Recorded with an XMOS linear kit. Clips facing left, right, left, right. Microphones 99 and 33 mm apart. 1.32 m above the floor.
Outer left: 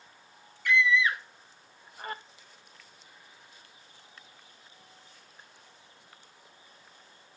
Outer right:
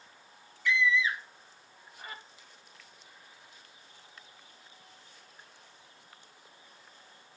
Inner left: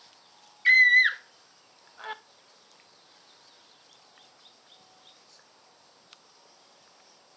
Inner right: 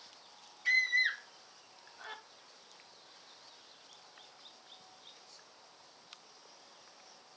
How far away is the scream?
About 0.8 m.